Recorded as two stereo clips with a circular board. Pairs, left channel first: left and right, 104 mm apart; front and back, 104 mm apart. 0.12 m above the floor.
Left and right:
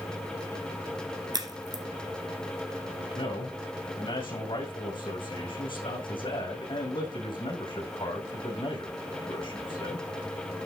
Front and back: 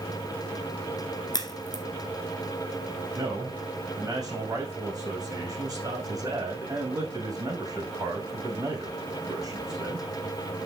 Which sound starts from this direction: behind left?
A man speaking, at 3.1 s.